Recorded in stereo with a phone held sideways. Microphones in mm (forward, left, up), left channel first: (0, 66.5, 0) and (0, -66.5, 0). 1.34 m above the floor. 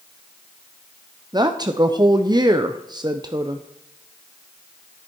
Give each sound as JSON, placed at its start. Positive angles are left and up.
{"t": 1.3, "sound": "a woman speaking", "side_deg": -30, "distance_m": 0.6}